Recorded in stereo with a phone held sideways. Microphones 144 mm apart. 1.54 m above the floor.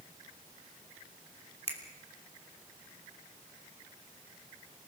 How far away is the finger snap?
About 3 m.